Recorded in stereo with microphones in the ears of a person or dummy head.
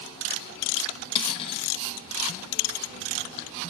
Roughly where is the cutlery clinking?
Left.